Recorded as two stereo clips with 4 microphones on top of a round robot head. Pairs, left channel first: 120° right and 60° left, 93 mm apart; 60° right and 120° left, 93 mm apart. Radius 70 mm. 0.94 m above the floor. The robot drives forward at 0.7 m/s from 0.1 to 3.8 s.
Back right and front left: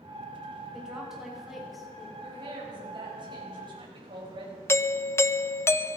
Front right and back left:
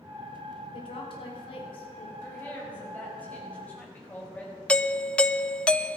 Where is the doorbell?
125° right, 0.7 m.